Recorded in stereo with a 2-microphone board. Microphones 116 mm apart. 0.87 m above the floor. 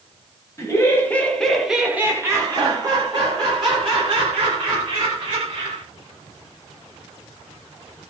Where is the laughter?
25° left (ahead or behind), 1.1 m; by 5.8 s 45° right (ahead or behind), 2.5 m.